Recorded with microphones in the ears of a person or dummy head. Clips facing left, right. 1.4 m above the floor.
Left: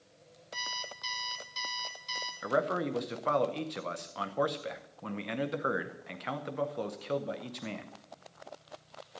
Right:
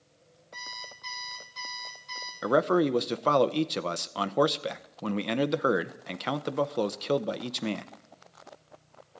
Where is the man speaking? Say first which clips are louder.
Right 7 dB; 50° right (ahead or behind), 0.6 m.